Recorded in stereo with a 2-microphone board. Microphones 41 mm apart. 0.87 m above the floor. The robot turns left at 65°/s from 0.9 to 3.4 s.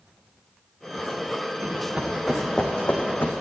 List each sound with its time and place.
1.6 s running footsteps: 45° right (ahead or behind), 4 m; by 3.3 s 60° left (ahead or behind), 2.5 m